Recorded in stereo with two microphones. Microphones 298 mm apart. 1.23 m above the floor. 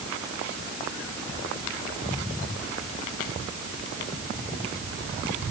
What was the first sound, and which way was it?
Only background noise.